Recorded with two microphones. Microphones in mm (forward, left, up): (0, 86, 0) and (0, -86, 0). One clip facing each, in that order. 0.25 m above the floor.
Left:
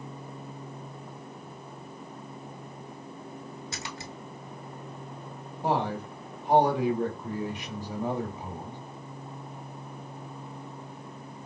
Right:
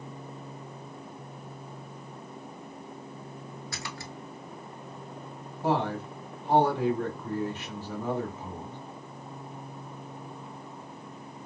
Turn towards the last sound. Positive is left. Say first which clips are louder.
# right 1 dB
turn(degrees=15)  # may be behind; listen again after turning